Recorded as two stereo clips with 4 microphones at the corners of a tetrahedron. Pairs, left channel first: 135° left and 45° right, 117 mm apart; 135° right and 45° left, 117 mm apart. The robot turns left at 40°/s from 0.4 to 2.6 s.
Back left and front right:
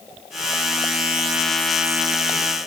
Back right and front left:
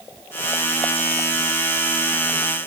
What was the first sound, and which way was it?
Only background noise.